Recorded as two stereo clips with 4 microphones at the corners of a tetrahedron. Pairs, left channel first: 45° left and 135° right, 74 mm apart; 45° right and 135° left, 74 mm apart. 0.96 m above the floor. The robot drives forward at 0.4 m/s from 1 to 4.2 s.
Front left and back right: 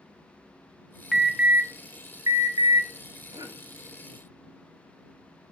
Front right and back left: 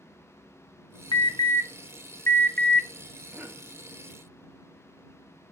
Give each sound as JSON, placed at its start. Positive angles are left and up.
{"t": 1.1, "sound": "an alarm", "azimuth_deg": -50, "distance_m": 0.6}
{"t": 3.3, "sound": "a cough", "azimuth_deg": -160, "distance_m": 1.9}